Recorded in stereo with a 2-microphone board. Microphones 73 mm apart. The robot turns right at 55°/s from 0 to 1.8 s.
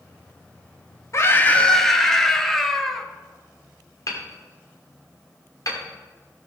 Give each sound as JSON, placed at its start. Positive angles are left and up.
{"t": 1.1, "sound": "a scream", "azimuth_deg": 140, "distance_m": 1.3}
{"t": 4.1, "sound": "hammering", "side_deg": 50, "distance_m": 2.0}